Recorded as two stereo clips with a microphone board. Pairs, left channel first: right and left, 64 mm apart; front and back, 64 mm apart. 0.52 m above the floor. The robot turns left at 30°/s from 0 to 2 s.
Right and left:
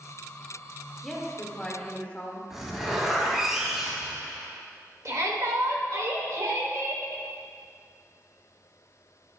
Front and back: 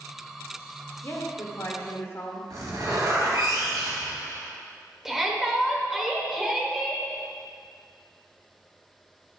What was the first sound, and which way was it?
A woman speaking, straight ahead.